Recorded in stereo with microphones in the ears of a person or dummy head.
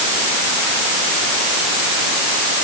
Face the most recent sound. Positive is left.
No sound to turn to.